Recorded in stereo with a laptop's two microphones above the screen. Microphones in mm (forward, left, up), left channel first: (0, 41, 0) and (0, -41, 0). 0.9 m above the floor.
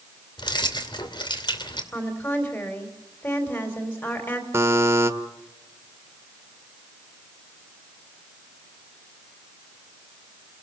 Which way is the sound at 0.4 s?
70° left (ahead or behind).